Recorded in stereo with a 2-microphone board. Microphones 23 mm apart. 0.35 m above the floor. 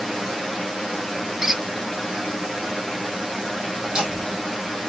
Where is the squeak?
15° right (ahead or behind), 1.2 m.